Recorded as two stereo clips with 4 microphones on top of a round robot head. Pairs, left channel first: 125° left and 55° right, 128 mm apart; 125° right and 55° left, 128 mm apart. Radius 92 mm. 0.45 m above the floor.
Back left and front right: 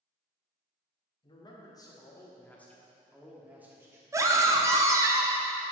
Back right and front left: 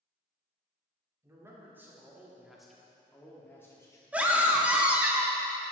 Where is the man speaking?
110° left, 1.7 m; by 4.0 s 95° right, 1.5 m.